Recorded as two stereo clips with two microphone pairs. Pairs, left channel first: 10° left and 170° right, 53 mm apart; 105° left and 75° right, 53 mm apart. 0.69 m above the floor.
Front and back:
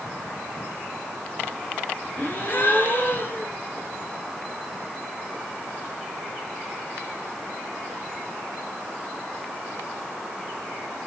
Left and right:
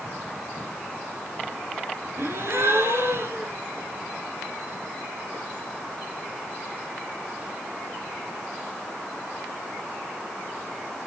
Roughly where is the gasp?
Ahead right.